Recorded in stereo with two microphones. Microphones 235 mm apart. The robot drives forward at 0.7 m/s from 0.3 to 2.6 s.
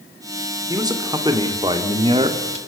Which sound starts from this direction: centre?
A man speaking, at 0.7 s.